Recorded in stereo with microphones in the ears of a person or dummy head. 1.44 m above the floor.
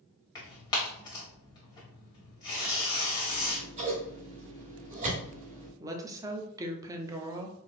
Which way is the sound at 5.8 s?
20° right (ahead or behind).